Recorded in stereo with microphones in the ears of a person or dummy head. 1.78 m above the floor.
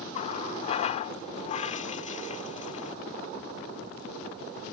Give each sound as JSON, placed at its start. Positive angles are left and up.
{"t": 0.1, "sound": "a running tap", "side_deg": 30}